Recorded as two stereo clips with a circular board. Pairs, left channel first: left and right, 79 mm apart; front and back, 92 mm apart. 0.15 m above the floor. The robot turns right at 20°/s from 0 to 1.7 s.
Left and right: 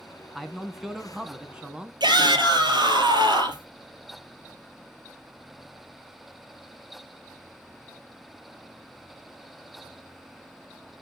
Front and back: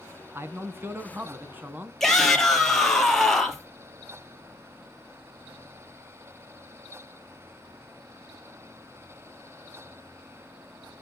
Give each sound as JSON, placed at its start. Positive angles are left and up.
{"t": 0.3, "sound": "a man speaking", "azimuth_deg": 180, "distance_m": 1.1}
{"t": 2.0, "sound": "a shout", "azimuth_deg": -85, "distance_m": 3.0}